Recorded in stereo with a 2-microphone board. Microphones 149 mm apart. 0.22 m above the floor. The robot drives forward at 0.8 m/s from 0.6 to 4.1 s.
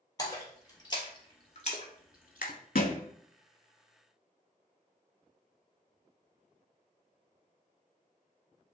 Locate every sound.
0.2 s a splash: 25° left (ahead or behind), 1.5 m; by 2.5 s 70° left (ahead or behind), 0.7 m
2.8 s a thud: 75° left (ahead or behind), 0.5 m; by 3.0 s 55° left (ahead or behind), 0.6 m